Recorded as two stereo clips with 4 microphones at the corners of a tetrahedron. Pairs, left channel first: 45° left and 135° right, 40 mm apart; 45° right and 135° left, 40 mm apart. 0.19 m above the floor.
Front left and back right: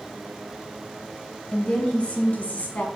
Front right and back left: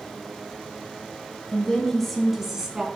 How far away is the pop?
I don't hear a pop.